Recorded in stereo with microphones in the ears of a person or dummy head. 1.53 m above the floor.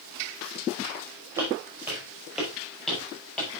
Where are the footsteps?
15° right (ahead or behind), 5 m; by 3.5 s 5° left (ahead or behind), 7 m.